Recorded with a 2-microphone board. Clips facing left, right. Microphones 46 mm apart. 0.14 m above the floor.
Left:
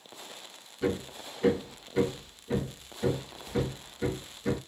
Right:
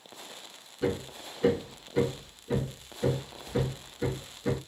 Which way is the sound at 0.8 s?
5° right (ahead or behind).